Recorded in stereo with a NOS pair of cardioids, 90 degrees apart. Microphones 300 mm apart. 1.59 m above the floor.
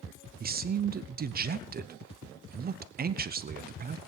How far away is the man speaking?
About 0.7 m.